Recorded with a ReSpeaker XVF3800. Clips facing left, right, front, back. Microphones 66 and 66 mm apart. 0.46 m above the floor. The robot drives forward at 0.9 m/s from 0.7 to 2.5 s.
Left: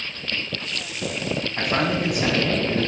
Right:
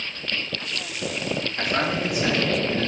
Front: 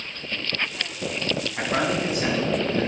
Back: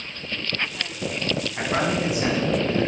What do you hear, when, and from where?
1.6 s a man speaking: 95° left, 3 m; by 2.9 s 110° left, 3.5 m